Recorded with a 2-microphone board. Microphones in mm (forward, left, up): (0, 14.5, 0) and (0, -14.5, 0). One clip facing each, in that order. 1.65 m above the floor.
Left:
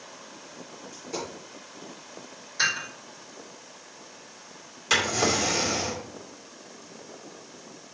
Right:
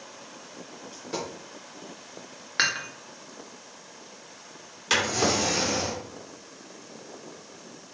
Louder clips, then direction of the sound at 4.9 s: Even; 10° right (ahead or behind).